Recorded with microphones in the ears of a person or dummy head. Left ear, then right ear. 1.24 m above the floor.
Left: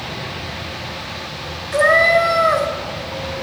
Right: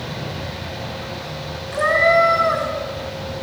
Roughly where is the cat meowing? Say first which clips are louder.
Left 2 dB; centre.